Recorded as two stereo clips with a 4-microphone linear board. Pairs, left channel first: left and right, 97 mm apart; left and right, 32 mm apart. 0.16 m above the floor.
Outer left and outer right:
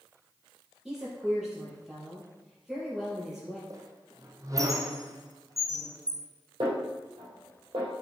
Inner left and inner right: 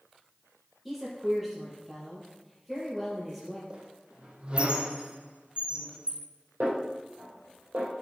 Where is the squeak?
35° right (ahead or behind), 1.2 m.